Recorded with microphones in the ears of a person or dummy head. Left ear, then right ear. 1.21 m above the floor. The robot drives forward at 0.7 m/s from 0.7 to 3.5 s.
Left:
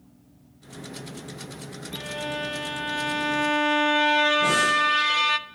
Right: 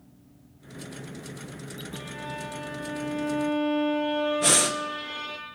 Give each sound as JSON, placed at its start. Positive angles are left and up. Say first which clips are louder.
{"t": 1.9, "sound": "a violin", "louder": "left 7 dB", "side_deg": 25, "distance_m": 1.2}
{"t": 4.4, "sound": "breathing", "louder": "left 3 dB", "side_deg": -50, "distance_m": 0.9}